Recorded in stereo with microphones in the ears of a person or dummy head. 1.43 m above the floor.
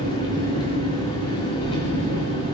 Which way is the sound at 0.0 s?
25° left (ahead or behind).